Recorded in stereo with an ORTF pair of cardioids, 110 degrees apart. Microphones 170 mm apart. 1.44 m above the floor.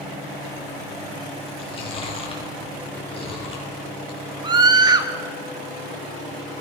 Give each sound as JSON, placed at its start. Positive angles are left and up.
{"t": 1.6, "sound": "chewing", "azimuth_deg": 35, "distance_m": 8.0}
{"t": 4.4, "sound": "a scream", "azimuth_deg": -25, "distance_m": 3.5}